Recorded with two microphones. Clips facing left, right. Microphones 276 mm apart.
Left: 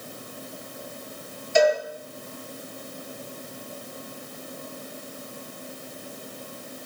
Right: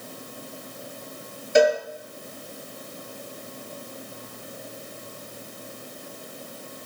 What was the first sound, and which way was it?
A cowbell, 65° right (ahead or behind).